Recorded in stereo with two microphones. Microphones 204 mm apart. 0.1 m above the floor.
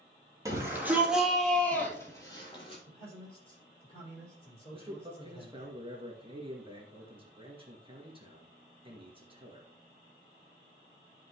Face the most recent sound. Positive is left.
turn(degrees=-25)  # may be behind; listen again after turning